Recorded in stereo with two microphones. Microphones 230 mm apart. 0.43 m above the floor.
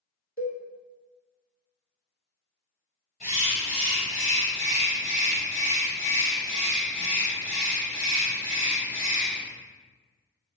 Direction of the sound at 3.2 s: 35° left (ahead or behind).